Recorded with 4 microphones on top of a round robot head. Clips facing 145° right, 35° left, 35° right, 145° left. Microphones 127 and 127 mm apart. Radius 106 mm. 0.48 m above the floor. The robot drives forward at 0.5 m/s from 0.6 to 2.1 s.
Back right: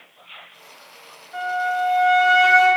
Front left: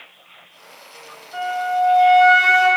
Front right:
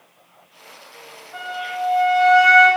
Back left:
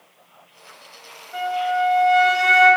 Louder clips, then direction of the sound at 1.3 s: Front left 2 dB, back left 7 dB; 105° left.